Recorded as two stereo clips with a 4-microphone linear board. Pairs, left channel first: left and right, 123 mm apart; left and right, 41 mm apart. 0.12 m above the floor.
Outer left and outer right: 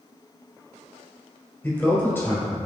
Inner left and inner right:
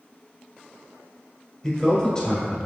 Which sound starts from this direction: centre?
A man speaking, at 1.6 s.